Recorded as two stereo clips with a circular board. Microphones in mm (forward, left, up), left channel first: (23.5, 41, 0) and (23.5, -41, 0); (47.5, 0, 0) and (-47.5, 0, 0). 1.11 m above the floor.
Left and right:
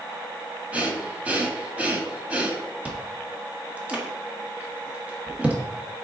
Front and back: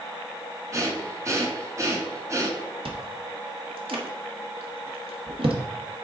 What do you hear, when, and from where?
0.7 s breathing: 150° right, 1.1 m
2.9 s chewing: 165° right, 1.1 m